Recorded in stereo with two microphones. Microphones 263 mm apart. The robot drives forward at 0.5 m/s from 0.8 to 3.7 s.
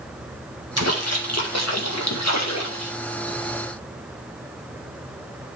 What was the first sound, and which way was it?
A splash, 70° left (ahead or behind).